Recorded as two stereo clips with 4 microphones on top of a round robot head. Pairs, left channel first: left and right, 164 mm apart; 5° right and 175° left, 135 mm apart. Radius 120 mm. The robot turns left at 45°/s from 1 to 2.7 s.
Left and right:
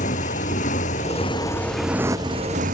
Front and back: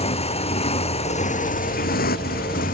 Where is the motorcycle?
35° left; by 2.7 s 40° right.